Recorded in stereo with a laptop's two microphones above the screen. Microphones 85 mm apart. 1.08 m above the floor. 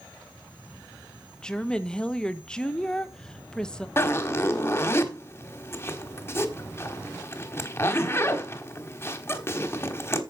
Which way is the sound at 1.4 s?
10° left (ahead or behind).